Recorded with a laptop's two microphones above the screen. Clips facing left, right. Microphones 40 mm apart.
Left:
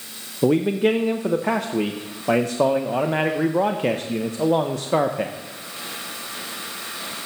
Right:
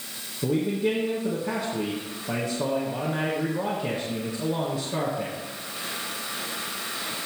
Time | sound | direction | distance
0.4 | a man speaking | 70° left (ahead or behind) | 0.6 m